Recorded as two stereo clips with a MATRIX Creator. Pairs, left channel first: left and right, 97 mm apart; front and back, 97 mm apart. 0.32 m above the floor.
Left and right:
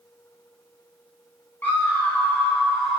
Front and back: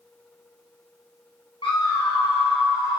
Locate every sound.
1.6 s a scream: 20° left, 3 m; by 3.0 s straight ahead, 1.8 m